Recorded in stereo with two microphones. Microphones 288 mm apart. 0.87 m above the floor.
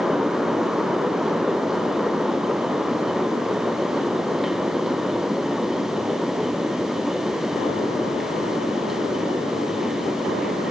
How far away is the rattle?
No rattle in this recording.